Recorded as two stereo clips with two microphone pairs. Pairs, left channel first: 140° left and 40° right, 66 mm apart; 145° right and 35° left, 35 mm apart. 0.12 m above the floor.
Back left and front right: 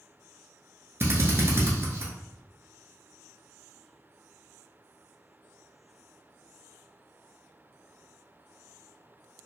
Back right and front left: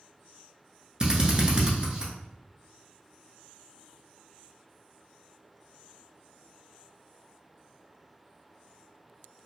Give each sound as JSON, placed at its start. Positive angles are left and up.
{"t": 1.0, "sound": "a drill", "azimuth_deg": -20, "distance_m": 0.8}